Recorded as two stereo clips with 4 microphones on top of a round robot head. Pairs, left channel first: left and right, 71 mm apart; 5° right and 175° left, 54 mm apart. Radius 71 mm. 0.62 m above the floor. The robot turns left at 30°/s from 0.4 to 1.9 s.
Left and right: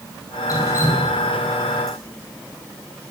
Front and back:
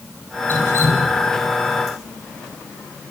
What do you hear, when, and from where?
0.5 s dripping: 45° left, 6 m; by 2.0 s straight ahead, 6 m